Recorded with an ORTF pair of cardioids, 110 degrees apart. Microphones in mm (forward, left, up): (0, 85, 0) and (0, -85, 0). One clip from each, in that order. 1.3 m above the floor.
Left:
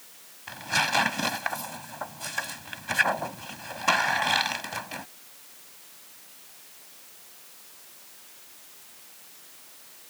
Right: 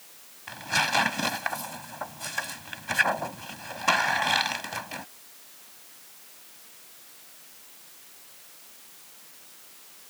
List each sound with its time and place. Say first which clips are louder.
0.5 s tearing paper: even; straight ahead